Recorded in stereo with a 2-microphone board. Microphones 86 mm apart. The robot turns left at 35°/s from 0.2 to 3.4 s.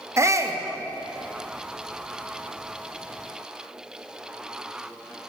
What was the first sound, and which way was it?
A shout, 30° right (ahead or behind).